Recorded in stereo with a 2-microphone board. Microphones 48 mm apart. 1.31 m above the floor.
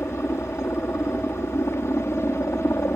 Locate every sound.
0.0 s a helicopter: 65° left (ahead or behind)